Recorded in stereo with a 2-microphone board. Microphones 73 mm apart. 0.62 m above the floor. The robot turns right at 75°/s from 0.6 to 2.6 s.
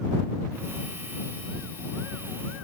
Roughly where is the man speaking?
No man speaking in this recording.